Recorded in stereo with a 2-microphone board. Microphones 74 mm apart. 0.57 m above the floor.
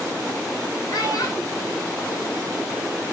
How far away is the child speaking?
About 1.6 m.